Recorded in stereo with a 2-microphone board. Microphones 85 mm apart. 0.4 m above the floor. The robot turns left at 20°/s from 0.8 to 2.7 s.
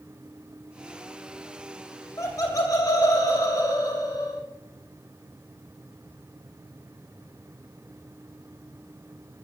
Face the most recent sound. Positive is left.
turn(degrees=45)  # may be behind; listen again after turning